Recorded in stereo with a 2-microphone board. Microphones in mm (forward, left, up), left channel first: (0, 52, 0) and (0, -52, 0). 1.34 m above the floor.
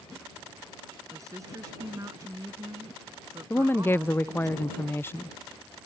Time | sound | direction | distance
1.1 | a woman speaking | 30° right (ahead or behind) | ?
3.5 | a woman speaking | 20° left (ahead or behind) | ?